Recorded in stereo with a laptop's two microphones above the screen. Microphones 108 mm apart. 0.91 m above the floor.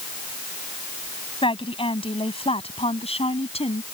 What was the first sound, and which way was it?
A woman speaking, 55° left (ahead or behind).